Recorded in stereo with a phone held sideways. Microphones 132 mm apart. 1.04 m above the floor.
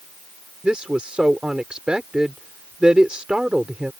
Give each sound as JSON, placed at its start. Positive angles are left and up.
{"t": 0.6, "sound": "a woman speaking", "side_deg": -5}